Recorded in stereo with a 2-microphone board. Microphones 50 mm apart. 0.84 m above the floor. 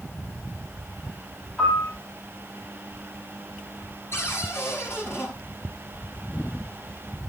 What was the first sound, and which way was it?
A piano, 10° left (ahead or behind).